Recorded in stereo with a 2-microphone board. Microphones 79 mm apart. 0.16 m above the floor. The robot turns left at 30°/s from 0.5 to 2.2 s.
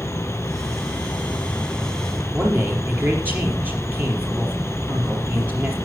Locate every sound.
0.0 s an insect: 45° left, 0.9 m; by 5.9 s 5° right, 0.9 m
2.3 s a man speaking: 25° right (ahead or behind), 4.5 m